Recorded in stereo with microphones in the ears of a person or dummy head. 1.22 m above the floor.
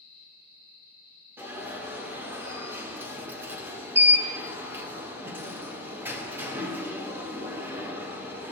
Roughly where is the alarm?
Centre.